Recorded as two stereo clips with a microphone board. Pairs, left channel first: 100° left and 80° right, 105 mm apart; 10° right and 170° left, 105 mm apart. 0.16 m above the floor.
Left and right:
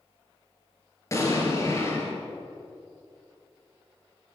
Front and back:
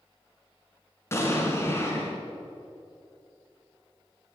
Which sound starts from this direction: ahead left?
An explosion, at 1.1 s.